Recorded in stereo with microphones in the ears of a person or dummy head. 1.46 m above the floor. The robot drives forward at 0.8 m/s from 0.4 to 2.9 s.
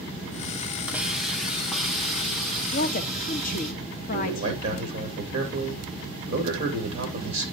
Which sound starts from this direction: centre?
A hiss, at 0.9 s.